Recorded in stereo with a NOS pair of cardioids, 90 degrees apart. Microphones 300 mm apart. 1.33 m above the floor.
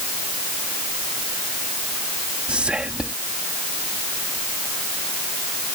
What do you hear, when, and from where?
2.5 s whispering: 5° right